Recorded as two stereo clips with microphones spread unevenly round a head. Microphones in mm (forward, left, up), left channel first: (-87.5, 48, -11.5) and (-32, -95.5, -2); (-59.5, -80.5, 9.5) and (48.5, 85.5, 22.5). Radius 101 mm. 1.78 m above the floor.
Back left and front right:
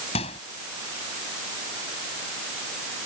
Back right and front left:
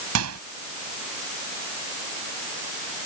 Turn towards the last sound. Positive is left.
turn(degrees=45)